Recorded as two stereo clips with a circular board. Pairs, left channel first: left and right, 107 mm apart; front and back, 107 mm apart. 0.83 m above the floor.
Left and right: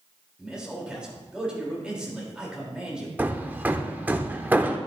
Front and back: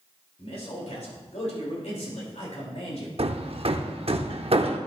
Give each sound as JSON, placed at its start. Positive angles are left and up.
{"t": 0.4, "sound": "a man speaking", "azimuth_deg": -10, "distance_m": 3.0}
{"t": 3.2, "sound": "hammering", "azimuth_deg": -165, "distance_m": 0.7}